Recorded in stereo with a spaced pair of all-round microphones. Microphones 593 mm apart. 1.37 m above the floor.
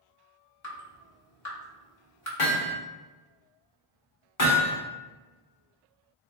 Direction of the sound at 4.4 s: 75° left (ahead or behind).